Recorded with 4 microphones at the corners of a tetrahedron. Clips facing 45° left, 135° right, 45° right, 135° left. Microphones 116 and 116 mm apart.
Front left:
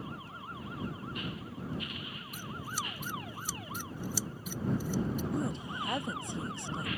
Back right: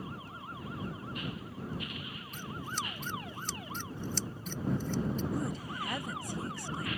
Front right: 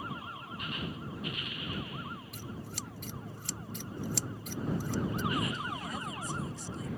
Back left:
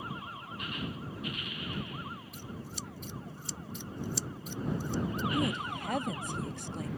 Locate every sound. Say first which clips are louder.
2.3 s scissors: back right 1 dB, even; 35° right
5.3 s a woman speaking: front left 1 dB, back left 3 dB; 115° left